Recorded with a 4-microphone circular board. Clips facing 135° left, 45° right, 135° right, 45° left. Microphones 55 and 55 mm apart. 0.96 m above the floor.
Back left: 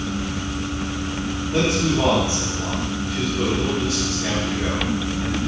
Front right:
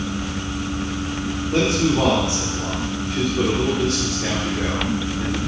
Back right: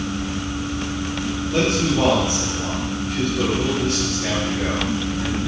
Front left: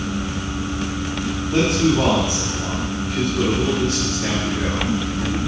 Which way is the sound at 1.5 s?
25° right.